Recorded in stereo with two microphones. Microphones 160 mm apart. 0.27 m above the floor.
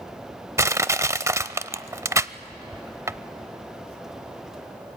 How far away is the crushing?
About 0.5 m.